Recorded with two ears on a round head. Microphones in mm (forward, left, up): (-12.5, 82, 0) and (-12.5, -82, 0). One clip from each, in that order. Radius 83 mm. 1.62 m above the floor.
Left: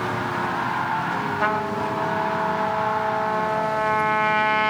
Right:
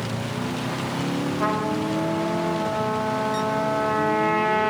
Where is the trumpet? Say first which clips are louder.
Even; 60° left (ahead or behind), 2 m.